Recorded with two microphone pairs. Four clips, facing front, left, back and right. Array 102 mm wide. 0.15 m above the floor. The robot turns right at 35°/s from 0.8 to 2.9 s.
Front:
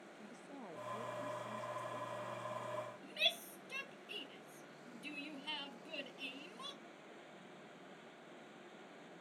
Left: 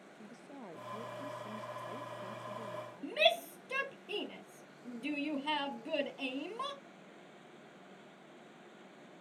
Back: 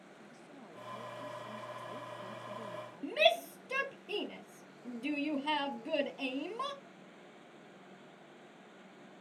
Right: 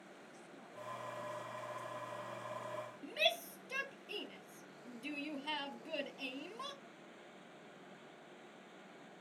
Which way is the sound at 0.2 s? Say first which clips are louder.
Left 5 dB, front 2 dB; 70° left.